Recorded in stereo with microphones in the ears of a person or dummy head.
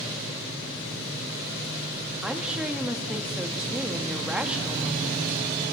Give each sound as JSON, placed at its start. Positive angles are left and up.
{"t": 2.2, "sound": "a woman speaking", "side_deg": -5, "distance_m": 1.5}